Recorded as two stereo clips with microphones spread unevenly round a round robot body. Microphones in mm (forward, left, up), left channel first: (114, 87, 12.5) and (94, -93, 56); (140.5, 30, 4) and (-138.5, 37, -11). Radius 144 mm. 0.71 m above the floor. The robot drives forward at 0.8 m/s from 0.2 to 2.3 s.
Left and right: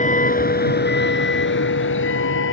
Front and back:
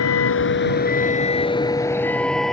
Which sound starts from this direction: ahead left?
A vehicle, at 0.0 s.